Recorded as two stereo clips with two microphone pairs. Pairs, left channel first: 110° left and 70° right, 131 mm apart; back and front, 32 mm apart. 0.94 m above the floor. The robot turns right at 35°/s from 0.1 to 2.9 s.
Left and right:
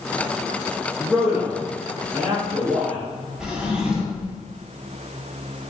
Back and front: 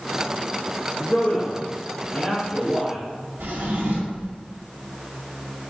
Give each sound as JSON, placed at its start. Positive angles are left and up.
{"t": 1.0, "sound": "a man speaking", "azimuth_deg": -155, "distance_m": 0.9}
{"t": 3.4, "sound": "a drawer", "azimuth_deg": 15, "distance_m": 0.7}